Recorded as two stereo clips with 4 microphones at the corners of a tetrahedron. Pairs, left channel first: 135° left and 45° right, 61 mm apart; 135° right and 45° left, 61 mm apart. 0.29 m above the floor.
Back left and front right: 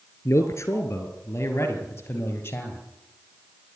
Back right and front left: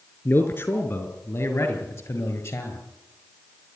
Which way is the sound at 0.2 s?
175° left.